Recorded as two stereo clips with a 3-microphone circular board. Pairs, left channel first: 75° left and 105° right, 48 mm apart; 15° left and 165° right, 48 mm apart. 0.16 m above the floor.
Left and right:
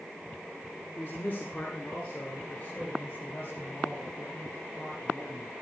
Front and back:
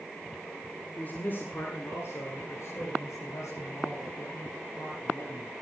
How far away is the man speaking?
About 2 m.